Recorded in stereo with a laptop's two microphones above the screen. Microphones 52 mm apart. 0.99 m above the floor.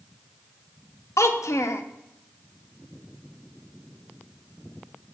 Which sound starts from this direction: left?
A child speaking, at 1.2 s.